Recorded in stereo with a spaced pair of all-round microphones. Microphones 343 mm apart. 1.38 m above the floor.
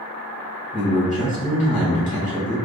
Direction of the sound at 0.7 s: 20° left (ahead or behind).